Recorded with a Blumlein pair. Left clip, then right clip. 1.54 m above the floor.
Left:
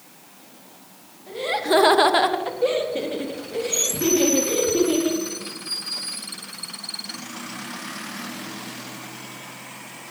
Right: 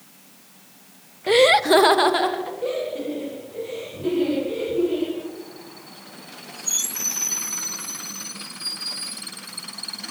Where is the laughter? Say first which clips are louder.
Right 8 dB; 50° right, 0.7 m; by 5.2 s 35° left, 5 m.